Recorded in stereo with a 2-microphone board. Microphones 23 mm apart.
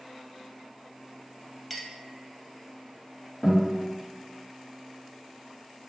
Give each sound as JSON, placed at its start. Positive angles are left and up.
{"t": 1.7, "sound": "a clink", "side_deg": 5, "distance_m": 0.6}
{"t": 3.4, "sound": "a guitar", "side_deg": 0, "distance_m": 1.5}